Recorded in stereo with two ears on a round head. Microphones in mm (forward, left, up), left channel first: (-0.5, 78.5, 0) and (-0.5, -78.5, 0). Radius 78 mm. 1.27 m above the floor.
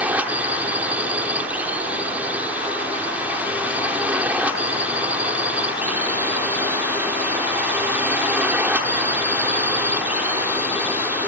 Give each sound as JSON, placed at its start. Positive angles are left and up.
{"t": 0.0, "sound": "a drone", "side_deg": -10}